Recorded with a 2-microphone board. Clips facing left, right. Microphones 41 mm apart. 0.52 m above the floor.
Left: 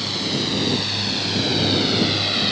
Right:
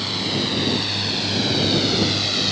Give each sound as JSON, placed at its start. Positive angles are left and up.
{"t": 0.0, "sound": "a drone", "side_deg": -10}